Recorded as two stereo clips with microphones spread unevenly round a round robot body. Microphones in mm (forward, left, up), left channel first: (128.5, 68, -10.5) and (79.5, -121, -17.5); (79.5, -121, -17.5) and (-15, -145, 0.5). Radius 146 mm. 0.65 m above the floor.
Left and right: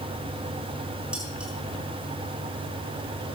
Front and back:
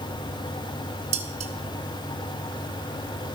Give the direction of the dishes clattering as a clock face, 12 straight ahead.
6 o'clock.